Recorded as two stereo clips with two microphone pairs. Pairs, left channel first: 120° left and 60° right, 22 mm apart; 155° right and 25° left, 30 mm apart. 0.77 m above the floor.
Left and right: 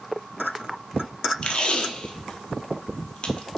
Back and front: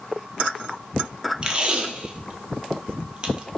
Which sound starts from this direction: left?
Tape being pulled, at 1.4 s.